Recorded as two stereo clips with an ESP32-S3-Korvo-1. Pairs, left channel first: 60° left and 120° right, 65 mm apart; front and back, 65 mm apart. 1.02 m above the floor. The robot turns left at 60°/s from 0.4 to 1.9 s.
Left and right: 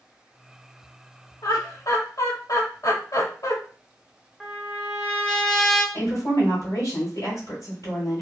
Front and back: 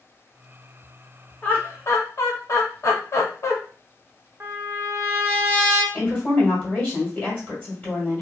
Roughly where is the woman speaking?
Ahead left.